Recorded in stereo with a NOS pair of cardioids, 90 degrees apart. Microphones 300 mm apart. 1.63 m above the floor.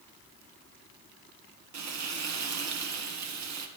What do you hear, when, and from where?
1.7 s frying: 65° right, 1.9 m